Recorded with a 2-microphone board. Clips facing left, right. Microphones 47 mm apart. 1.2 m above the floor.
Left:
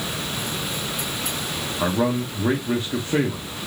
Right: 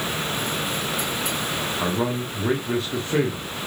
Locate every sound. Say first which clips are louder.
1.8 s a man speaking: left 5 dB; 5° left (ahead or behind), 0.8 m